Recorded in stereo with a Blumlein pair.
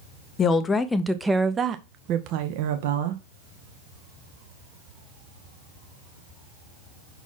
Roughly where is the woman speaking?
Ahead left.